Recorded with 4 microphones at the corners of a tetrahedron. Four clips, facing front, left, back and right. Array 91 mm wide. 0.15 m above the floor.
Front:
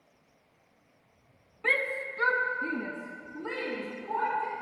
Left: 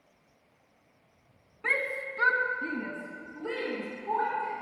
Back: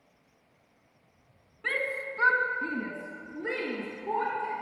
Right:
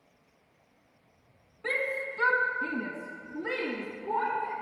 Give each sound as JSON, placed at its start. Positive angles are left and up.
{"t": 1.6, "sound": "a shout", "azimuth_deg": 75, "distance_m": 1.1}